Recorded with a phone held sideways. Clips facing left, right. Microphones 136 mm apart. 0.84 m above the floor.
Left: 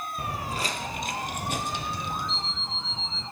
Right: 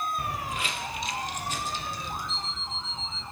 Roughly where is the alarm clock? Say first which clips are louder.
Left 2 dB; centre.